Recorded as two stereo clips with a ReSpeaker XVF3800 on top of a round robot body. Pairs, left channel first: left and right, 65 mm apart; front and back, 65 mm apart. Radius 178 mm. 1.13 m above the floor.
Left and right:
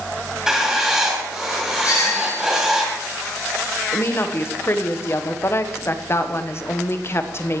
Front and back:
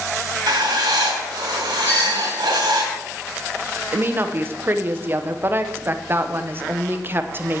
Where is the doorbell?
55° left, 5.5 m.